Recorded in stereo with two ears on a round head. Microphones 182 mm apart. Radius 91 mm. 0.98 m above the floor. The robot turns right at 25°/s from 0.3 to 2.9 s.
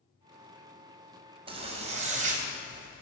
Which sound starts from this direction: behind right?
A zipper, at 1.5 s.